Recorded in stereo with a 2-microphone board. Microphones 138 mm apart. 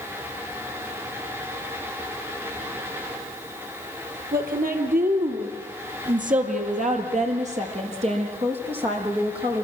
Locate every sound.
4.3 s a woman speaking: 80° right, 5 m; by 9.6 s 35° right (ahead or behind), 7.5 m